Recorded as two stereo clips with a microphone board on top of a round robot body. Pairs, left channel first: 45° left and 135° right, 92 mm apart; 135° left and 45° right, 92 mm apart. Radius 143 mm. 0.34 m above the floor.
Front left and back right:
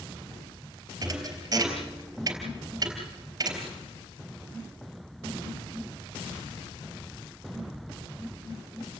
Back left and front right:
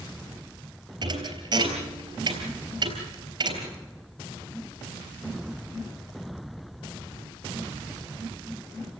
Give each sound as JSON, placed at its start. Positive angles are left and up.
{"t": 1.0, "sound": "a thud", "azimuth_deg": -85, "distance_m": 3.5}